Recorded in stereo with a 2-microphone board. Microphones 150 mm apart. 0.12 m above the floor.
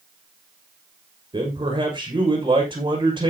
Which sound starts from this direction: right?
A man speaking, at 1.3 s.